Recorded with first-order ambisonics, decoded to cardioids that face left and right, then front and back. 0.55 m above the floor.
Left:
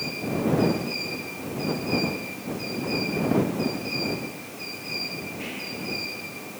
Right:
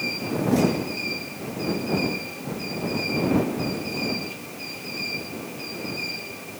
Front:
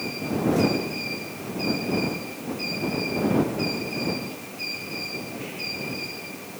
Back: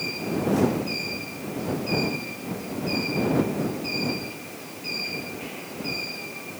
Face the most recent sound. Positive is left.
No sound to turn to.